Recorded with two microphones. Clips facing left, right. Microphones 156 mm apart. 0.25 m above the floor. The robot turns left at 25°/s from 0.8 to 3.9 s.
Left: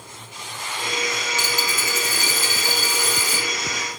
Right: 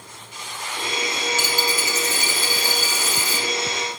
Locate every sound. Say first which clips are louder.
1.4 s a dropped coin: right 2 dB; 165° left, 2 m; by 3.5 s 115° left, 2 m